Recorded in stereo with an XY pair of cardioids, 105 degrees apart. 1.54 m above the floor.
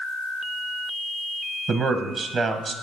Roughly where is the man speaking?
Ahead right.